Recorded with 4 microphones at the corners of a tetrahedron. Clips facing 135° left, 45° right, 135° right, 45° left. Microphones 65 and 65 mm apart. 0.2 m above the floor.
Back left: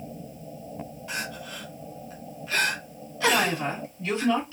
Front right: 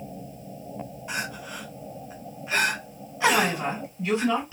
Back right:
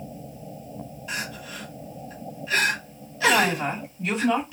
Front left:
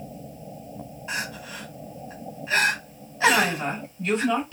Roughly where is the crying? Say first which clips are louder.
Front right 2 dB, front left 2 dB; ahead.